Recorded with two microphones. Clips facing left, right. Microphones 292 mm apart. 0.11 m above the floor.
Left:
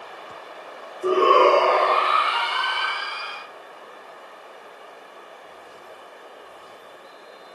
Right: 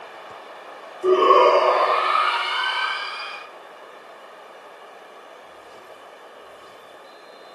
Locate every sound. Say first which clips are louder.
1.0 s a shout: right 2 dB; 10° left (ahead or behind), 1.4 m; by 3.4 s 60° left (ahead or behind), 3 m